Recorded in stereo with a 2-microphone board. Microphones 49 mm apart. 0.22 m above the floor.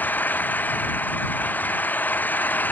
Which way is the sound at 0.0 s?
35° left (ahead or behind).